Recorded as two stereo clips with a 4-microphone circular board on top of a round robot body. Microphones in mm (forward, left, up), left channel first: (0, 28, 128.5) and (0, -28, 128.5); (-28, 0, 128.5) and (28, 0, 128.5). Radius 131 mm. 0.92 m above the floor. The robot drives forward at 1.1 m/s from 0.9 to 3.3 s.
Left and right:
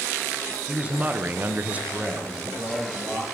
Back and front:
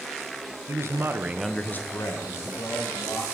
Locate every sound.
0.7 s a man speaking: 25° right, 0.9 m; by 3.3 s 170° right, 2 m